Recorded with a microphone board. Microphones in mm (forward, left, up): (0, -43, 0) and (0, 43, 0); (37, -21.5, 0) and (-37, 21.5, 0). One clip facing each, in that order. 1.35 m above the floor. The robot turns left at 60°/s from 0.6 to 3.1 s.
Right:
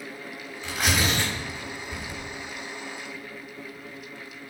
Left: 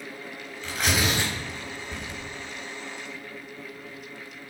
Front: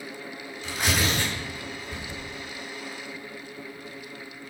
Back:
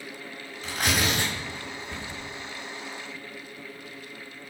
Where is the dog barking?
I don't hear a dog barking.